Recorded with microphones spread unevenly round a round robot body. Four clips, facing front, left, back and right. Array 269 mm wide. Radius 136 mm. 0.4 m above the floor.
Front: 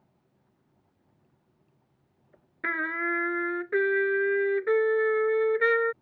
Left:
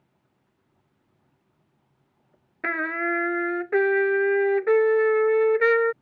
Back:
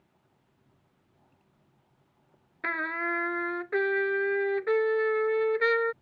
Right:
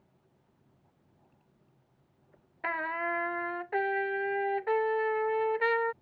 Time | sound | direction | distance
2.6 | a trumpet | 75° left | ?